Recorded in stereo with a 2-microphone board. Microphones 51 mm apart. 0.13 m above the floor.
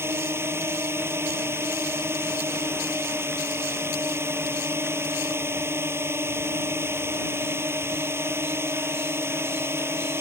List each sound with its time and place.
0.0 s a drone: 55° right (ahead or behind)